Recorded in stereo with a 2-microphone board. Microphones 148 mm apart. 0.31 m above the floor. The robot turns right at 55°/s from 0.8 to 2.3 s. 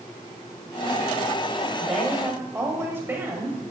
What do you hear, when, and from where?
1.8 s a woman speaking: centre (ahead or behind), 1.2 m; by 3.6 s 15° right (ahead or behind), 1.2 m